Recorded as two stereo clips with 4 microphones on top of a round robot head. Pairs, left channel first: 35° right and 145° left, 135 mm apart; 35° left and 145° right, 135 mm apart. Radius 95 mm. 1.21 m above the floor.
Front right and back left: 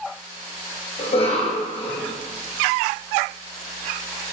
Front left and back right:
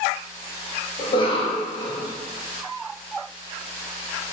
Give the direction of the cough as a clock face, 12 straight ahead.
12 o'clock.